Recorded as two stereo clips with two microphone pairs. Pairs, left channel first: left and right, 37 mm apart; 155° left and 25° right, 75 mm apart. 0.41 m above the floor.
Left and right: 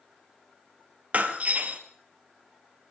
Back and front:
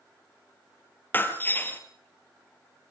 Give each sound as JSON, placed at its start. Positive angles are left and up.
{"t": 1.1, "sound": "breaking glass", "azimuth_deg": -140, "distance_m": 1.8}